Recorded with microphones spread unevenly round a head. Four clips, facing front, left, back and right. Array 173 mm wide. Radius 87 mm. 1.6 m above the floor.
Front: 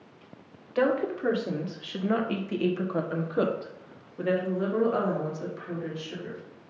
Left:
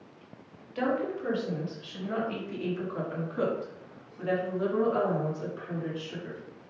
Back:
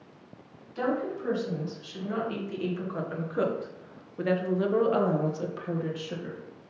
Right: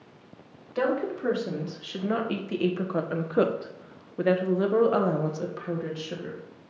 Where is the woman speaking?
30° right, 2 m; by 6.4 s 135° right, 1.9 m.